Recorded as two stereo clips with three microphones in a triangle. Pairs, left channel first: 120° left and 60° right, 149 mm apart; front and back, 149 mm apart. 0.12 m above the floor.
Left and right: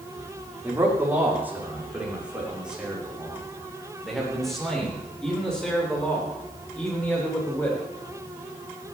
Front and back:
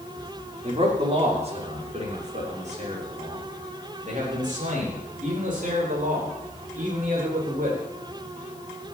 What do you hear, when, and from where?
0.6 s a man speaking: 135° right, 7 m; by 7.8 s 160° right, 10.5 m